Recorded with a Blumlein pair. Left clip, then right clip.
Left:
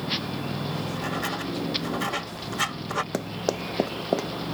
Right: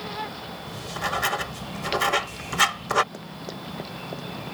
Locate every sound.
0.7 s writing: 65° right
3.1 s running footsteps: 30° left